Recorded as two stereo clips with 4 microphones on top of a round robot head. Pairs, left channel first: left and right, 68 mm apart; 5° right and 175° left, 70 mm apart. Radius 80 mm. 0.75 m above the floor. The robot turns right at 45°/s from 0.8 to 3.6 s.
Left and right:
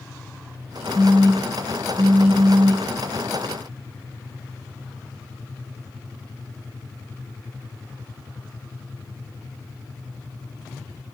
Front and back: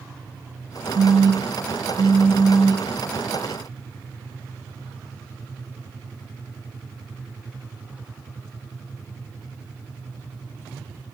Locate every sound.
0.9 s a phone buzzing: straight behind, 0.6 m; by 2.9 s 90° right, 0.6 m